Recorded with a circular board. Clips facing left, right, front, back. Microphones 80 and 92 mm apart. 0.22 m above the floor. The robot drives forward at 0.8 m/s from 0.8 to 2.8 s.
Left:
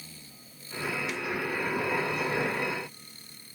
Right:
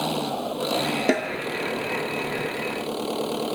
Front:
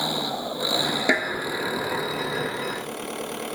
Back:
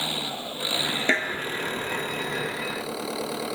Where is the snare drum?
75° right; by 1.3 s 85° right.